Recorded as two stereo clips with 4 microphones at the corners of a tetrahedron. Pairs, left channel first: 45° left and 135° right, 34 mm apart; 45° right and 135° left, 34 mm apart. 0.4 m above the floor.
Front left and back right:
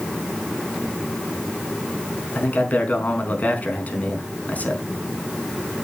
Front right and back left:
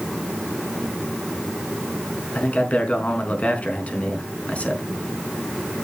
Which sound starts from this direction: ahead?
A man speaking, at 2.4 s.